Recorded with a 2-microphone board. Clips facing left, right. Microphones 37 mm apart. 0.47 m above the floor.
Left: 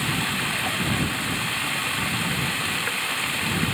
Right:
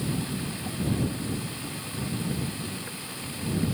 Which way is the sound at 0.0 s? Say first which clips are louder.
Left 7 dB; 65° left (ahead or behind).